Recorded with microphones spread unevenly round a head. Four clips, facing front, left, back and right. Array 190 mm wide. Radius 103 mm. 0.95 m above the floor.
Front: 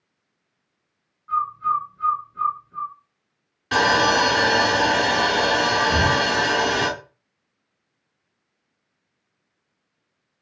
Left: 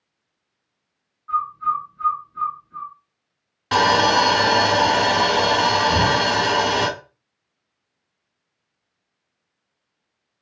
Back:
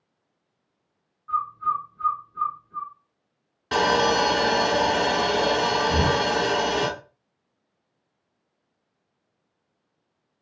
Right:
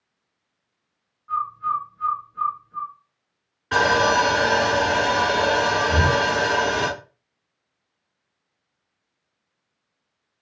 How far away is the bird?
About 1.8 m.